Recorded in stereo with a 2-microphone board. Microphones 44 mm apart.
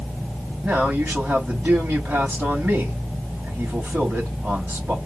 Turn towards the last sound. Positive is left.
turn(degrees=-35)  # may be behind; listen again after turning